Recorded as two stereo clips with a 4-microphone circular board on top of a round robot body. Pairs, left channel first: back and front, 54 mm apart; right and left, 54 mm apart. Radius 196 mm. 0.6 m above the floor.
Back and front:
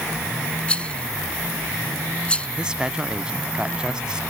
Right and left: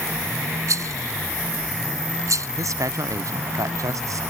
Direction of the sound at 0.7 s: 110° left.